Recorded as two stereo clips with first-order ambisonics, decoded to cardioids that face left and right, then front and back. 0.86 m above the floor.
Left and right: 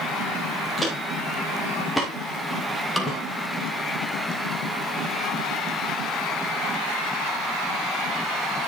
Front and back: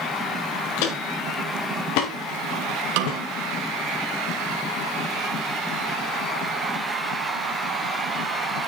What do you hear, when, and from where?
0.8 s footsteps: straight ahead, 5.5 m; by 4.0 s 20° left, 5 m
3.0 s a snare drum: 175° left, 2.5 m